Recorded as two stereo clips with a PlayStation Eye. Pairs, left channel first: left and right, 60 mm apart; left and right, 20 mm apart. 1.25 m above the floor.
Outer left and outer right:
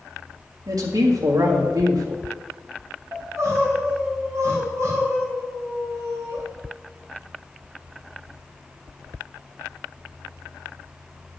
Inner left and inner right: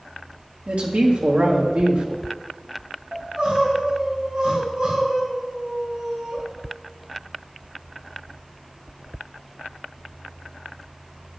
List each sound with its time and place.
0.7 s a man speaking: 75° right (ahead or behind), 2 m
3.1 s crying: 55° right (ahead or behind), 4.5 m